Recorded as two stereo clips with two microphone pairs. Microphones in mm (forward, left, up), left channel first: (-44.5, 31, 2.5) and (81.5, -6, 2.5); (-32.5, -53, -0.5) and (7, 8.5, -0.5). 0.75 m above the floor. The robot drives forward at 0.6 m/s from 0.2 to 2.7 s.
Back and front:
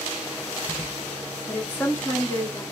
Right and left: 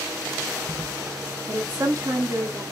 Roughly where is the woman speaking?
Left.